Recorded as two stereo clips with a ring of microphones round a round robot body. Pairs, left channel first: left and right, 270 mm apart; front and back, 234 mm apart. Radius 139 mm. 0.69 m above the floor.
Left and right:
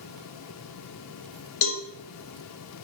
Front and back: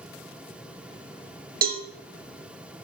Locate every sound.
1.6 s a cowbell: 130° left, 0.8 m